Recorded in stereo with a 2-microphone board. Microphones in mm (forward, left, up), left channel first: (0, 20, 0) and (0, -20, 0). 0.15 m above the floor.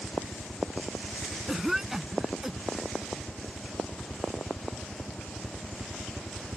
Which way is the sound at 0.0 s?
60° right (ahead or behind).